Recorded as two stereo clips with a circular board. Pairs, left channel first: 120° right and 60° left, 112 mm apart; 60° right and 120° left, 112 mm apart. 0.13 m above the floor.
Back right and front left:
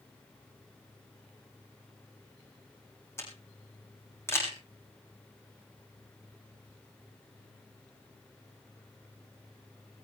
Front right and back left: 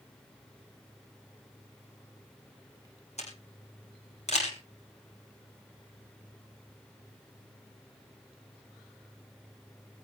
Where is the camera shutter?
55° right, 6.5 m.